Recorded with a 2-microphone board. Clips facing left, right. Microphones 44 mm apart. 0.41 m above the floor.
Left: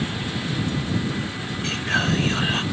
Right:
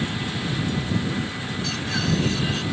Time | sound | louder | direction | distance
1.6 | whispering | left 4 dB | 40° left (ahead or behind) | ?